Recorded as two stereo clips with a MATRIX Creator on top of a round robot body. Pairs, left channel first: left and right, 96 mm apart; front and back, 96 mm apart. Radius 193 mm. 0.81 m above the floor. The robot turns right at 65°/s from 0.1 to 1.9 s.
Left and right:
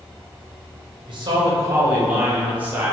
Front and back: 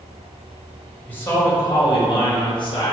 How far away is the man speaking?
About 1.4 m.